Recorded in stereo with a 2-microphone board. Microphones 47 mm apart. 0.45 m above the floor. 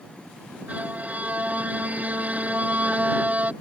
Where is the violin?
30° right (ahead or behind).